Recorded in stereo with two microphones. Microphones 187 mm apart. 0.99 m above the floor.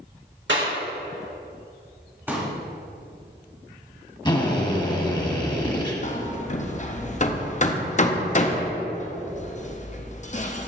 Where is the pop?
10° right (ahead or behind), 1.6 m.